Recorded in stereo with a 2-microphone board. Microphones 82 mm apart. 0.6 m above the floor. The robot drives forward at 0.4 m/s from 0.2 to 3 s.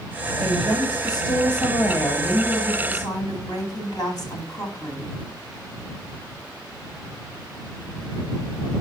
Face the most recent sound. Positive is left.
turn(degrees=45)  # may be behind; listen again after turning